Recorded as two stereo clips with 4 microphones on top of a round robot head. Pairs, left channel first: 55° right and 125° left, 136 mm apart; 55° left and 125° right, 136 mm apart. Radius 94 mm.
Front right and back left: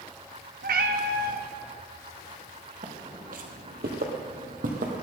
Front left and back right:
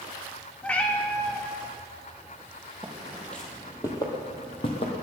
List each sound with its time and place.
0.6 s a cat meowing: 135° left, 0.9 m
2.8 s footsteps: 155° left, 2.0 m; by 5.0 s 95° left, 2.5 m